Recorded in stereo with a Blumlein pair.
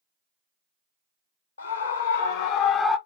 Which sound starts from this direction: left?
A scream, at 1.6 s.